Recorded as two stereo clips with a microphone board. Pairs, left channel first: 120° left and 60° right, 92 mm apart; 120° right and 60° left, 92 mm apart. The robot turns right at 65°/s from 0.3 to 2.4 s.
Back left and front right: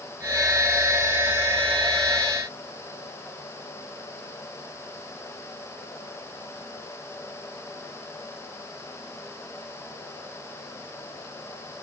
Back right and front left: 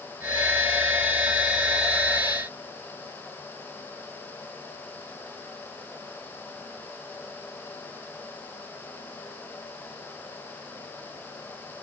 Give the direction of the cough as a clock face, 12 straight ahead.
I don't hear a cough.